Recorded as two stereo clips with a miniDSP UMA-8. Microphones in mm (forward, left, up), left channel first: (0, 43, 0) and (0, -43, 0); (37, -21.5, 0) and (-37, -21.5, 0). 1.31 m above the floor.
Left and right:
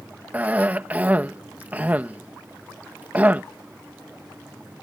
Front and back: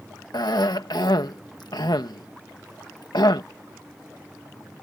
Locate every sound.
0.3 s a cough: 20° right